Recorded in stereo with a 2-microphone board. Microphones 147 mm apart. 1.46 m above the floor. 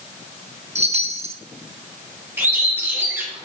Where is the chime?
45° right (ahead or behind), 1.0 m.